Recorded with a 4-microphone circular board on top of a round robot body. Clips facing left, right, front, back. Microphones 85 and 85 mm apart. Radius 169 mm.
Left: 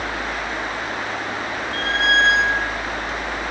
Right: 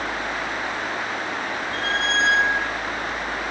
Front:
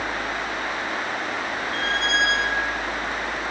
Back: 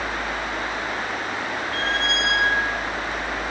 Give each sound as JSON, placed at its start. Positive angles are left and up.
{"t": 1.7, "sound": "a squeak", "azimuth_deg": 135, "distance_m": 6.5}